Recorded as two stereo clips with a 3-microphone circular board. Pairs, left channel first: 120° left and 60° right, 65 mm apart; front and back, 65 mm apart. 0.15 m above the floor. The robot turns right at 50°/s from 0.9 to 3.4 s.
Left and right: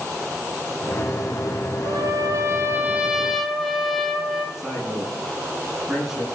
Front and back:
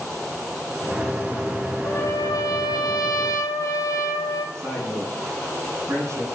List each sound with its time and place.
1.9 s a trumpet: 50° right, 1.5 m; by 4.5 s 30° left, 1.5 m
4.5 s a man speaking: 140° right, 8 m